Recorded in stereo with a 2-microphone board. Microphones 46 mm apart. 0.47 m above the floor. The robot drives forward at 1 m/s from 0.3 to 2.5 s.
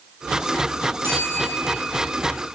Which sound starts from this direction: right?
A bell, at 1.0 s.